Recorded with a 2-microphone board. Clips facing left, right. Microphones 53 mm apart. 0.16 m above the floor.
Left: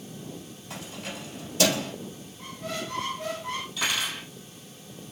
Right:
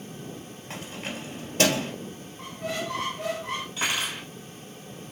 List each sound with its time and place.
0.7 s keys jangling: 45° right (ahead or behind), 2 m
2.4 s a squeak: 55° right (ahead or behind), 1.9 m
3.8 s cutlery clinking: 35° right (ahead or behind), 2.5 m